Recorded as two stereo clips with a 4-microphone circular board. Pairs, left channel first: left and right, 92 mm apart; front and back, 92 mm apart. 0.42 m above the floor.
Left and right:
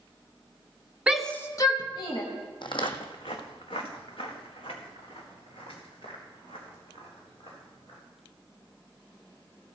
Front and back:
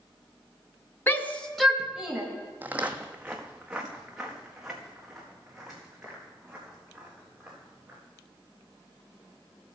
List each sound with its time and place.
1.1 s a shout: 25° right, 0.8 m; by 2.2 s 100° left, 1.6 m
2.6 s footsteps: 115° left, 0.8 m; by 8.0 s 95° left, 7 m